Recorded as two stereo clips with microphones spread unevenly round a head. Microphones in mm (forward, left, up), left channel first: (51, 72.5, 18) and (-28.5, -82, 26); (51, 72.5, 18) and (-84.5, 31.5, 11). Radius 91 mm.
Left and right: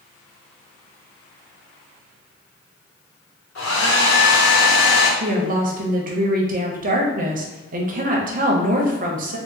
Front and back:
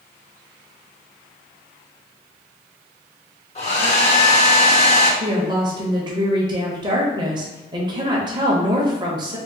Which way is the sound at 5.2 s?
120° right.